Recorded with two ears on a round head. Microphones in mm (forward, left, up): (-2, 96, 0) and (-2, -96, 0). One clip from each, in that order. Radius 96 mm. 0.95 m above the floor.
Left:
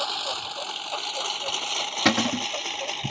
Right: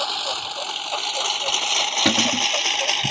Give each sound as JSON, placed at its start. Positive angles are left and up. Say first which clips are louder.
{"t": 0.0, "sound": "a lawn mower", "louder": "right 4 dB", "side_deg": -5}
{"t": 2.0, "sound": "a cupboard door", "louder": "right 1 dB", "side_deg": 25}